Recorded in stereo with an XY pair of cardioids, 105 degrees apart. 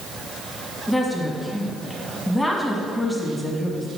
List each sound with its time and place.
0.9 s a woman speaking: 10° left, 1.4 m